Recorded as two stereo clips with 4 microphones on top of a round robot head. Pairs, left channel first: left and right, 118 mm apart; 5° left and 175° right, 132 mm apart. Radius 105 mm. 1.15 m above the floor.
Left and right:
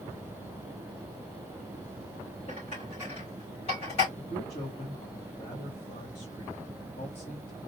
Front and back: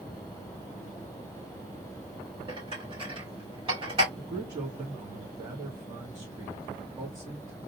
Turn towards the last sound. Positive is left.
turn(degrees=130)